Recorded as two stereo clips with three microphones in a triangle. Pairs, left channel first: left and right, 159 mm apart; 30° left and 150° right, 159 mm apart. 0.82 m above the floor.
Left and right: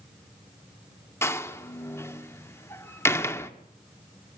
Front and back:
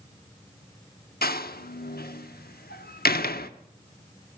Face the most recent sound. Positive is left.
turn(degrees=15)